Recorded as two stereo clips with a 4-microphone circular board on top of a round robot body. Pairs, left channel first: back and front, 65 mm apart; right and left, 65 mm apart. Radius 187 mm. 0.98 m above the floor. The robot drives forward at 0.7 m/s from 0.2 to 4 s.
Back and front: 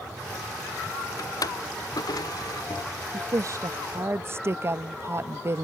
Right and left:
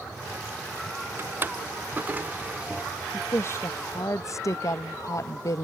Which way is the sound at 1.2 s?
145° left.